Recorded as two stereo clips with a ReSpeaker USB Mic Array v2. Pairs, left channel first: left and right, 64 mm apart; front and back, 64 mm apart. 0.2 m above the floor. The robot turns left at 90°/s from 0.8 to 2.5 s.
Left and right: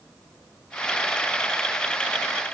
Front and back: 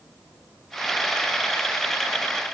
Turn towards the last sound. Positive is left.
No sound to turn to.